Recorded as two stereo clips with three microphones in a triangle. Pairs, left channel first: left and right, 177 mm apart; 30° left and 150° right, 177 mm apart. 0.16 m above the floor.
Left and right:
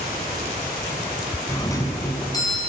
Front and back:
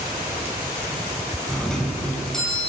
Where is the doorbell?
110° left, 1.5 m.